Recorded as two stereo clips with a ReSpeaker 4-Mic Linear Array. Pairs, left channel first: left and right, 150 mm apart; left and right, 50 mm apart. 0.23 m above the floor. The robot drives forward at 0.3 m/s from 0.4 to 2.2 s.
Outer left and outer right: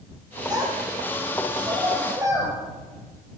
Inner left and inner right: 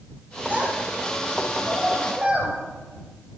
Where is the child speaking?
25° right (ahead or behind), 4.5 m.